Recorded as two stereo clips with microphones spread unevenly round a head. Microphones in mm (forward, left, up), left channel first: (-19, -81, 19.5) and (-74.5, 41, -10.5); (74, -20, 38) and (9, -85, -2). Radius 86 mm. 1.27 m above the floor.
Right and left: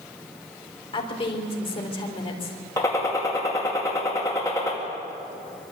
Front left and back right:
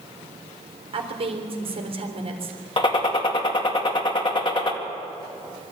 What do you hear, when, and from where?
0.9 s a woman speaking: 115° right, 3.5 m
2.8 s a gunshot: 10° left, 2 m